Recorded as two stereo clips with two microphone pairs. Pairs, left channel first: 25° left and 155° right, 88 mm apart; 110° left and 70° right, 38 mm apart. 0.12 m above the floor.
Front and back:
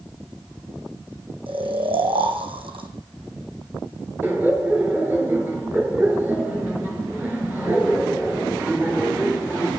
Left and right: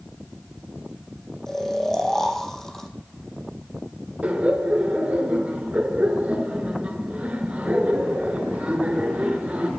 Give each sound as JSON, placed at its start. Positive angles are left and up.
{"t": 1.5, "sound": "snoring", "azimuth_deg": -170, "distance_m": 1.7}
{"t": 4.2, "sound": "laughter", "azimuth_deg": -100, "distance_m": 2.0}